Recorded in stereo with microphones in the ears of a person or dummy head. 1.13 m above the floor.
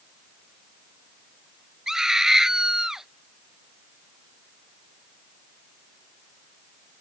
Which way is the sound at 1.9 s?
Centre (ahead or behind).